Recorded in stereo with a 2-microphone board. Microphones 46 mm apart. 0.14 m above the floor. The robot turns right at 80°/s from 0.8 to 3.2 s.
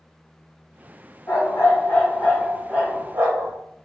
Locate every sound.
1.3 s a dog barking: 100° left, 1.6 m; by 3.5 s 105° right, 1.6 m